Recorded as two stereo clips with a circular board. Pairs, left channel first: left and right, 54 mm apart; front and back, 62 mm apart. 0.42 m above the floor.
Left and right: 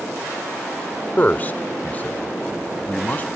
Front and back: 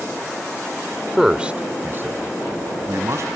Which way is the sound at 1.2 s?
95° left.